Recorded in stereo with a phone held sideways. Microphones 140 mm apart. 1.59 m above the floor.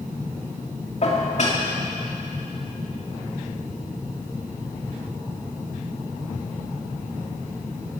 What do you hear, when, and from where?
1.0 s dishes clattering: 50° left (ahead or behind), 2.5 m